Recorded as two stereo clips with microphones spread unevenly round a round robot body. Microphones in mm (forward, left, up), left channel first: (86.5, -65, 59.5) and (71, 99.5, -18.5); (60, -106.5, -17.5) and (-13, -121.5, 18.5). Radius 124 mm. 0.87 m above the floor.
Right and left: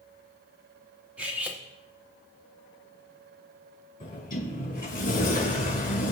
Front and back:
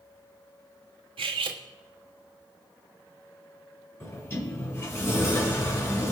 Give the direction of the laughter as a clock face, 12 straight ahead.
No laughter in this recording.